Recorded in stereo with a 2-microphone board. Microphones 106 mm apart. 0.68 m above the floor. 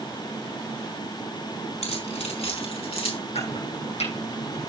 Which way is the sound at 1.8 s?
85° left.